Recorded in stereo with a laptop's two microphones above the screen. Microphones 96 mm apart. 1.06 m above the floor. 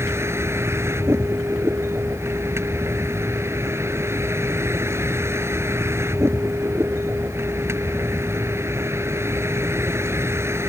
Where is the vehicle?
30° right (ahead or behind).